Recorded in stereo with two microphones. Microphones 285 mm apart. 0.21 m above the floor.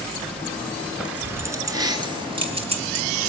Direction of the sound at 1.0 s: 5° right (ahead or behind).